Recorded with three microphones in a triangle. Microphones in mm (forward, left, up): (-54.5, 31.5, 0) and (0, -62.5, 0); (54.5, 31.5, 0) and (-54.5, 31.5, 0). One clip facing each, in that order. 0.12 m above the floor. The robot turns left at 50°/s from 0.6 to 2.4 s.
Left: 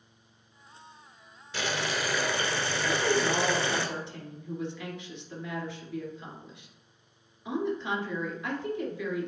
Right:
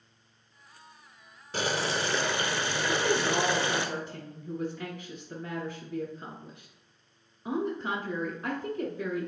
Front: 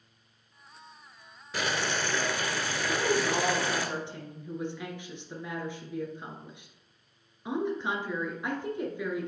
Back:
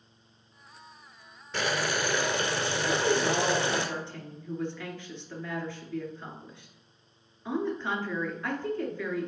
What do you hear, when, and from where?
1.5 s boiling: 85° right, 0.9 m; by 3.9 s 125° right, 0.9 m
2.9 s a woman speaking: 65° right, 1.7 m